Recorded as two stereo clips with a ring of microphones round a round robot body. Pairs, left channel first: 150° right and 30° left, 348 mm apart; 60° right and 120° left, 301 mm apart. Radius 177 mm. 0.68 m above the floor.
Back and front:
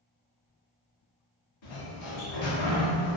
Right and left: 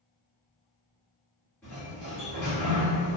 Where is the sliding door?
145° right, 1.0 m.